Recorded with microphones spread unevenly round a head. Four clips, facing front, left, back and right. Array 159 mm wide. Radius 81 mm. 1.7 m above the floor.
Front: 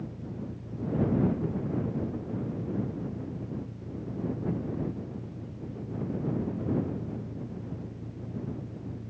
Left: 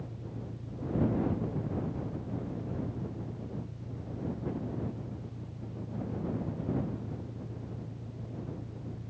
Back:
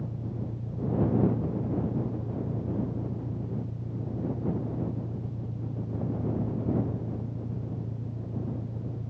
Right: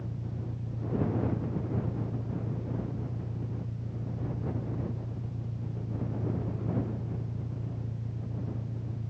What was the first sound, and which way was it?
An engine running, 150° right.